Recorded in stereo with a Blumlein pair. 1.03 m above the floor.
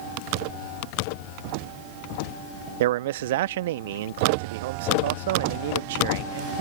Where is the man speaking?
55° right.